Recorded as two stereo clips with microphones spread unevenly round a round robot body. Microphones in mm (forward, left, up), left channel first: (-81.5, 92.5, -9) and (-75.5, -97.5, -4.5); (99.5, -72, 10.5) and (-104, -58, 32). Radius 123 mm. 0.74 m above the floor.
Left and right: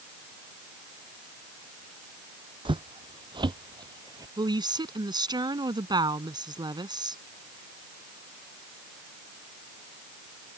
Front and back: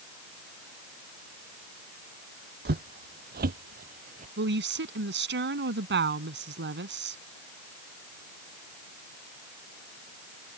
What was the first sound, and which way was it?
Footsteps, 150° right.